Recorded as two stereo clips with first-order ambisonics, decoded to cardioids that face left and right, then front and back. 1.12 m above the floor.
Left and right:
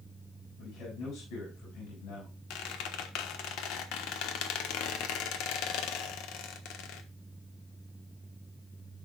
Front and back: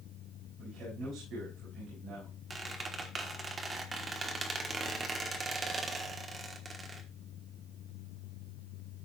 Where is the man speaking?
120° left, 6.5 m.